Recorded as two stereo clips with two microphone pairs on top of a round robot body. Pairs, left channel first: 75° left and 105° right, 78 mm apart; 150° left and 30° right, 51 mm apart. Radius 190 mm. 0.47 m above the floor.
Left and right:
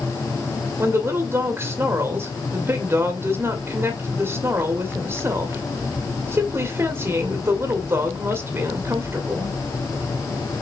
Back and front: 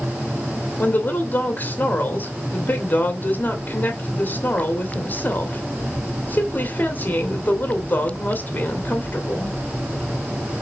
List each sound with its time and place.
0.8 s a woman speaking: 170° right, 2.0 m